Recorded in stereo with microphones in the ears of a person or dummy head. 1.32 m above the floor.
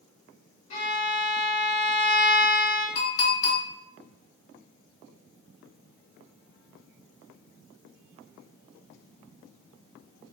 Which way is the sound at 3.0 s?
70° left (ahead or behind).